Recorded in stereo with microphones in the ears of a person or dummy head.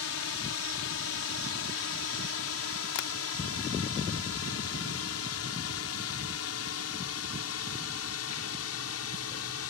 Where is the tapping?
65° left (ahead or behind).